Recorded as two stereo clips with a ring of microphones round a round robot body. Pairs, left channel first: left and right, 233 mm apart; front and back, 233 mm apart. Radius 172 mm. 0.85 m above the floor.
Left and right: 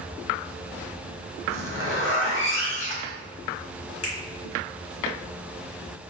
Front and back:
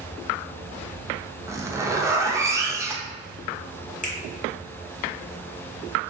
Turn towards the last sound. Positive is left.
turn(degrees=60)